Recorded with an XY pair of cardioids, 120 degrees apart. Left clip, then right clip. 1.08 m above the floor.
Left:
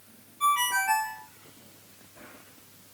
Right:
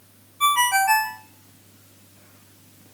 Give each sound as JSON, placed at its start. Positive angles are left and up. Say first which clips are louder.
{"t": 0.4, "sound": "a ringtone", "louder": "right 6 dB", "azimuth_deg": -50, "distance_m": 0.7}